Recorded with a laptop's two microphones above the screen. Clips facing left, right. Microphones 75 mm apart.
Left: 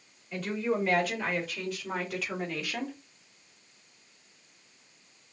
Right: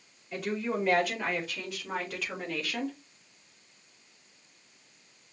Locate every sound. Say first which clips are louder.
0.3 s a woman speaking: left 2 dB; 5° right (ahead or behind), 3 m; by 3.0 s 10° left (ahead or behind), 1.5 m